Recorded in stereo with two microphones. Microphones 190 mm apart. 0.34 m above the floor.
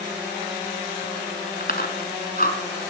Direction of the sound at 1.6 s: 50° left (ahead or behind).